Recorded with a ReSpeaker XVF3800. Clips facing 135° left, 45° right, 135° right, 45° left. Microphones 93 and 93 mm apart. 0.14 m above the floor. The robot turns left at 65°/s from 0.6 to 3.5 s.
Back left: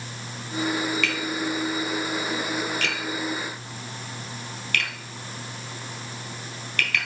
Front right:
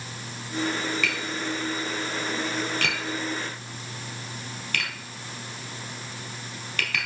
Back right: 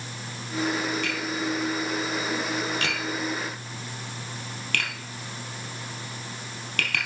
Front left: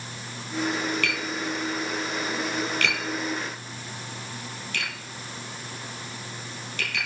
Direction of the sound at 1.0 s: 35° left.